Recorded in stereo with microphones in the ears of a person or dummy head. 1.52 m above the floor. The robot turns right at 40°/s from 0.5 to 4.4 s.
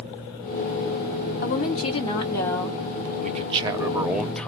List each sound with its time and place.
1.4 s a woman speaking: 125° left, 1.6 m; by 2.8 s straight behind, 1.6 m
3.2 s a man speaking: 45° right, 0.7 m; by 4.5 s 5° left, 0.7 m